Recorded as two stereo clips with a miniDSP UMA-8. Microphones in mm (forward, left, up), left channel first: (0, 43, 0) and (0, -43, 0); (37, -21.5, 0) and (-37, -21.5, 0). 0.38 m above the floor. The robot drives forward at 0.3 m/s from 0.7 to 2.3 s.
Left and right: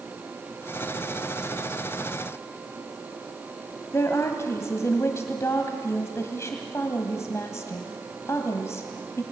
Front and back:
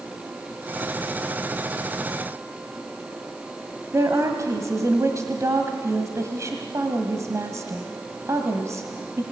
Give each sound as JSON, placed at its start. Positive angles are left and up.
{"t": 3.9, "sound": "a woman speaking", "azimuth_deg": 140, "distance_m": 1.8}